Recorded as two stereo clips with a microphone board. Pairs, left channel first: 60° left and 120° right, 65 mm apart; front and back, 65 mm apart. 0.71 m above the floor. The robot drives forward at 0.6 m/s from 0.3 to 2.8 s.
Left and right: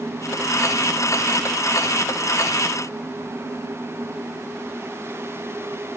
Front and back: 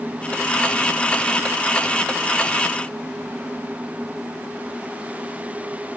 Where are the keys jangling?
No keys jangling in this recording.